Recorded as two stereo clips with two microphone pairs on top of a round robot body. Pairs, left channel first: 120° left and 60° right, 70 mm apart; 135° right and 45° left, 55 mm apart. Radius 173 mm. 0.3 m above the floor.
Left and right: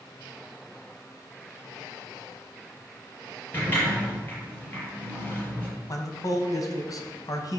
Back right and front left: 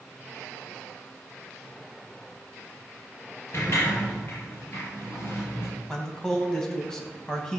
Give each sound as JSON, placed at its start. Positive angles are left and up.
{"t": 3.5, "sound": "a sliding door", "azimuth_deg": 180, "distance_m": 5.0}
{"t": 5.9, "sound": "a man speaking", "azimuth_deg": 150, "distance_m": 2.5}